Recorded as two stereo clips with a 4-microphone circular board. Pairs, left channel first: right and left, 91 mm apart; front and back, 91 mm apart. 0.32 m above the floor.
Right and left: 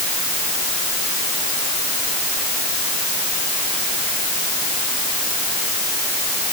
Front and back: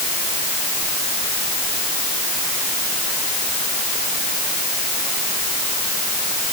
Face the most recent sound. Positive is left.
No sound to turn to.